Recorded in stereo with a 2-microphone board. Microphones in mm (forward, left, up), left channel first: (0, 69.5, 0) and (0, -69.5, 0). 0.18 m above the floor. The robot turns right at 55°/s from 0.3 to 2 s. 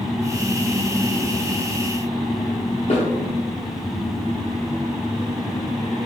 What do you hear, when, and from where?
2.9 s a snare drum: 60° left (ahead or behind), 4 m